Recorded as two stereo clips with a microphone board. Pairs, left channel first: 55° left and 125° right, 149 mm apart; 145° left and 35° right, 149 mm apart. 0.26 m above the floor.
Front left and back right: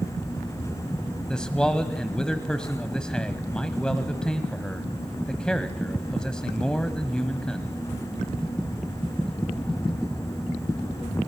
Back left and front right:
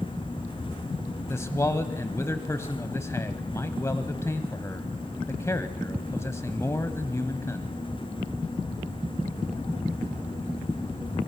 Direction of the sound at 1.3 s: 130° left.